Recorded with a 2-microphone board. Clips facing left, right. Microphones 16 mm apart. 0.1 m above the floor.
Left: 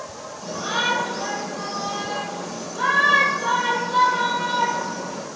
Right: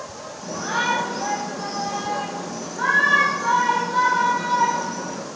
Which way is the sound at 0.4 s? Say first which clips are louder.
Even; 60° left (ahead or behind).